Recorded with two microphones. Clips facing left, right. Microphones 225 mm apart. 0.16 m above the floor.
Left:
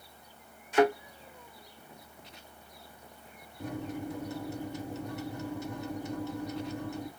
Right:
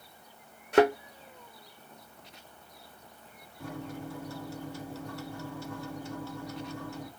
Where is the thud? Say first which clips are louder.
Right 2 dB; 65° right (ahead or behind), 1.4 m.